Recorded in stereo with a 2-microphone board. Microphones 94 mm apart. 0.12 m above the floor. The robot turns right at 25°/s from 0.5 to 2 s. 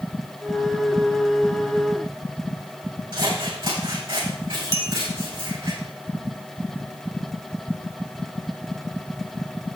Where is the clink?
40° right (ahead or behind), 1.8 m.